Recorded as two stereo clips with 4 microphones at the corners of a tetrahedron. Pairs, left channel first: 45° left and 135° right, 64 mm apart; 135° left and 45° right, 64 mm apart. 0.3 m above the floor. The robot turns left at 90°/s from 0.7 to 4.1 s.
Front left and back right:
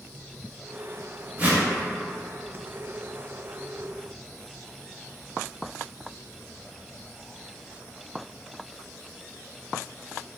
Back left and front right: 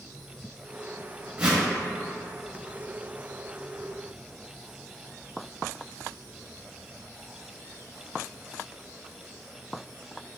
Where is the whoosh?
95° right, 0.6 m; by 1.6 s 120° right, 0.6 m.